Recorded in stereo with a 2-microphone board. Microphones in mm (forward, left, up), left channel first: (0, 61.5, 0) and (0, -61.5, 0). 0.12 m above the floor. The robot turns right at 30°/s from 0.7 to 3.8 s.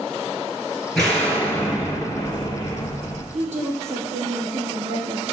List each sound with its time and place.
0.9 s an explosion: 5° left, 2 m; by 3.2 s 75° left, 2 m
3.3 s a woman speaking: 70° right (ahead or behind), 3 m